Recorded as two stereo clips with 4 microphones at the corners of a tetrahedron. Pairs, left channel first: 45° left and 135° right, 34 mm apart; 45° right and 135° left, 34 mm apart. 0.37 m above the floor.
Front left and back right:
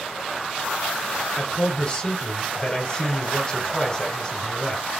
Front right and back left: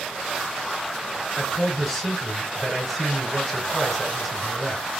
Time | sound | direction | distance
1.4 | a man speaking | 40° left | 1.3 m